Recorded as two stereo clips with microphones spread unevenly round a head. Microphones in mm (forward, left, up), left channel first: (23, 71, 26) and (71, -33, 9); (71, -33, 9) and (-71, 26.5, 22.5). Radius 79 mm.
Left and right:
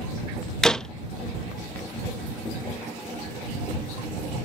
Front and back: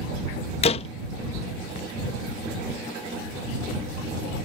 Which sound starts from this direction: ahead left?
A door slam, at 0.6 s.